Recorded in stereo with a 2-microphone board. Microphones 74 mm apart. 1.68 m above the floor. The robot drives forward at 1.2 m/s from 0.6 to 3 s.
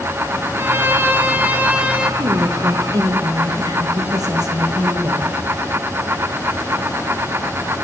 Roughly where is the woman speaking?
Right.